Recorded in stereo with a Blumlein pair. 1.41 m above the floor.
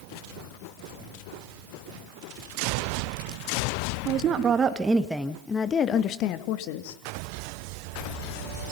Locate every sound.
4.0 s a woman speaking: 35° right, 2 m; by 7.0 s 50° left, 3 m